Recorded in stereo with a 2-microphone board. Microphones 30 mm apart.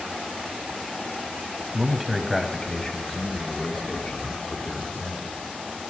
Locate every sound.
1.7 s a man speaking: 20° right (ahead or behind), 1.4 m; by 5.4 s 55° left (ahead or behind), 3.5 m